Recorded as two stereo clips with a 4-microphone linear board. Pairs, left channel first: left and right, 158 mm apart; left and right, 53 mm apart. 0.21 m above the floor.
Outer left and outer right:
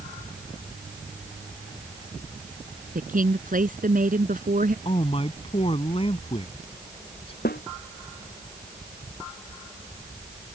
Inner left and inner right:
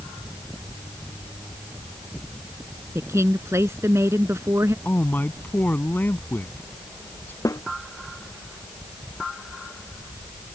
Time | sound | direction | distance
3.0 | a woman speaking | 60° right (ahead or behind) | ?
4.8 | a man speaking | 40° left (ahead or behind) | ?
7.5 | a snare drum | 80° left | ?